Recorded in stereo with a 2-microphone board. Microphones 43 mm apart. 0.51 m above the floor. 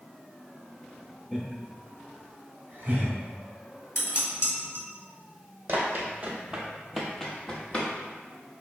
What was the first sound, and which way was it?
Laughter, 5° left (ahead or behind).